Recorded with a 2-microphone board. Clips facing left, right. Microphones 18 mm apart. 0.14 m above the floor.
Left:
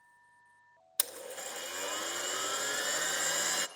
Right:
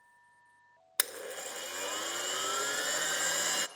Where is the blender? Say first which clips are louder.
Right 3 dB; 40° right (ahead or behind), 0.9 m.